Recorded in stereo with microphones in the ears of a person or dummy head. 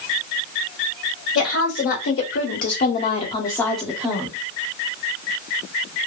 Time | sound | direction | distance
1.4 | a woman speaking | 80° left | 1.6 m